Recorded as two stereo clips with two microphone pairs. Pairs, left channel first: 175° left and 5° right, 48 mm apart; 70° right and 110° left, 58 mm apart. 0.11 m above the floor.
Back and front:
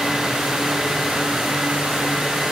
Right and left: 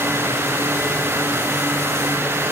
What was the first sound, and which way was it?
Only background noise.